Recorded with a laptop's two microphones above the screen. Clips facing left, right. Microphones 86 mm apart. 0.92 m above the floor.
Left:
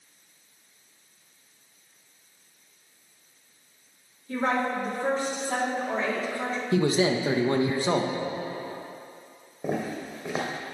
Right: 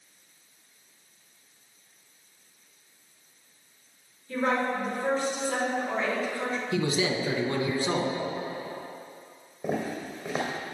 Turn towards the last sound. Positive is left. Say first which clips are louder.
# left 1 dB
turn(degrees=10)  # may be behind; listen again after turning